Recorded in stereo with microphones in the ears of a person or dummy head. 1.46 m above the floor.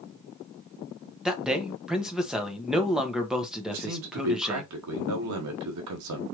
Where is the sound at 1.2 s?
10° right (ahead or behind), 1.0 m.